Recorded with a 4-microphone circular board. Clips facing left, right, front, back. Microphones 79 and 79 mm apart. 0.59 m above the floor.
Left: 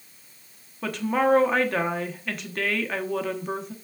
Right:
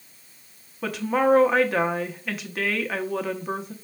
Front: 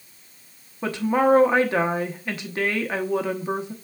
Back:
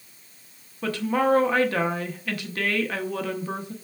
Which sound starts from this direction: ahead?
A woman speaking, at 0.8 s.